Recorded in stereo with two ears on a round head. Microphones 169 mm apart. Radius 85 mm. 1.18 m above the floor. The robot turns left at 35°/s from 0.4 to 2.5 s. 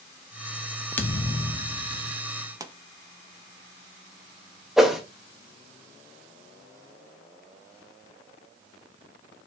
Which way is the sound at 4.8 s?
Centre (ahead or behind).